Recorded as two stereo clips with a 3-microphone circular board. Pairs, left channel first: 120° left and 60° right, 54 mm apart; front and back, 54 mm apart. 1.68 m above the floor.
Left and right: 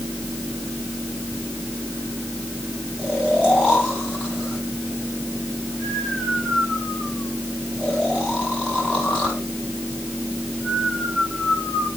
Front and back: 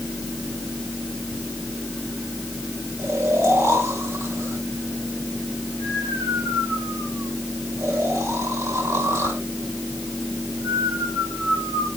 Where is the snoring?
175° right, 7.5 m.